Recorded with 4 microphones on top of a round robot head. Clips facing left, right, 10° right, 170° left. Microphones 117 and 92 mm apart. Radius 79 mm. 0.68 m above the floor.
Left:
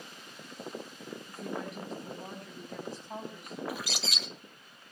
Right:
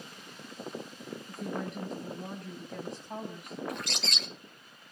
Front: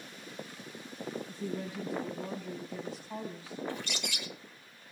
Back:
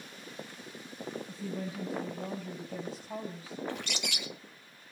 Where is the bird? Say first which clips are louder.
Even, back 1 dB; 175° left, 2.5 m.